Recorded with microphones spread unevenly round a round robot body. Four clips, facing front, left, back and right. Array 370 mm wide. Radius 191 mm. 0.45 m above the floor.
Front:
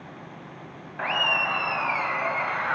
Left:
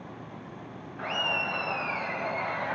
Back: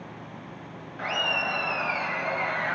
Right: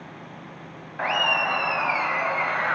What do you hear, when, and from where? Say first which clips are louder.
1.0 s laughter: right 8 dB, front 3 dB; 70° right, 4 m; by 2.8 s 80° right, 6.5 m